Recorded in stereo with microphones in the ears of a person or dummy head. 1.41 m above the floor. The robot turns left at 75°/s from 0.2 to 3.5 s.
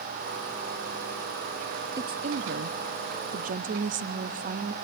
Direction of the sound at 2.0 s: 20° right.